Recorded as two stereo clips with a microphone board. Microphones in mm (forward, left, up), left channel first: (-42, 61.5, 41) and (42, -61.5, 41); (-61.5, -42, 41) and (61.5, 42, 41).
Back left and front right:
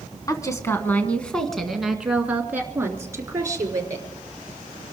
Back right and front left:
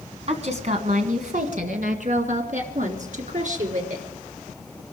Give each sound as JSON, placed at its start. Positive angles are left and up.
{"t": 0.3, "sound": "a woman speaking", "azimuth_deg": 65, "distance_m": 2.0}